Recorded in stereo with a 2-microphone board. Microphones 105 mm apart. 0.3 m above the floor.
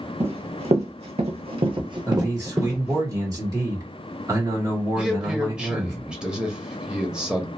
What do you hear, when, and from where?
0.2 s running footsteps: 70° right (ahead or behind), 1.1 m; by 3.1 s 20° right (ahead or behind), 1.1 m
2.1 s a man speaking: 35° right (ahead or behind), 1.7 m
5.0 s a man speaking: 5° right (ahead or behind), 0.9 m